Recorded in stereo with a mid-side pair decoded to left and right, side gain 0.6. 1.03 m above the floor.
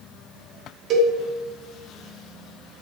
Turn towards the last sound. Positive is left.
turn(degrees=-55)